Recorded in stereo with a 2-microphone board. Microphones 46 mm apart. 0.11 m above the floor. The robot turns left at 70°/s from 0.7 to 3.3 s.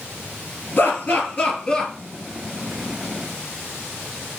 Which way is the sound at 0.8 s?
45° left (ahead or behind).